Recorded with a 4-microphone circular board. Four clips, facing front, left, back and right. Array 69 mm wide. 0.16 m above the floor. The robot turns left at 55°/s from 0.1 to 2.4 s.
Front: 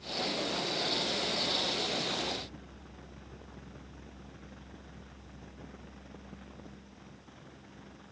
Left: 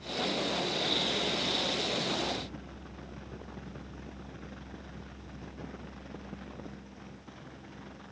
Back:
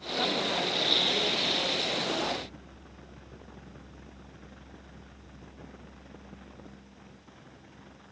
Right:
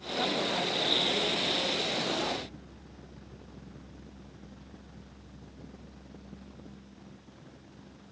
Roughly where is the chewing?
No chewing in this recording.